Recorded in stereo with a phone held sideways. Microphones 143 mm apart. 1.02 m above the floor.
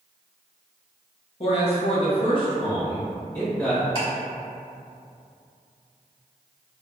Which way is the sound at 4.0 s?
40° left (ahead or behind).